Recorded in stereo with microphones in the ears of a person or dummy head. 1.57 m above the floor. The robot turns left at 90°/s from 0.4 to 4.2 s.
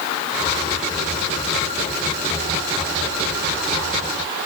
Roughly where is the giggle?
No giggle in this recording.